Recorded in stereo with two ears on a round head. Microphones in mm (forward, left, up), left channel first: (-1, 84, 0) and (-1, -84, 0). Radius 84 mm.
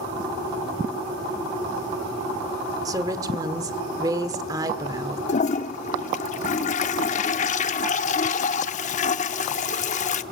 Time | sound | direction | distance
2.9 | a woman speaking | 20° right (ahead or behind) | 1.5 m
5.3 | a toilet flushing | 40° left (ahead or behind) | 0.8 m